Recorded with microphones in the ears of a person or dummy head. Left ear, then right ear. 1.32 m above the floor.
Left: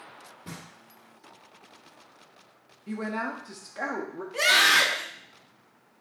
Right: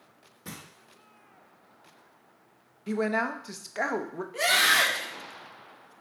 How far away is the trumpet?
No trumpet in this recording.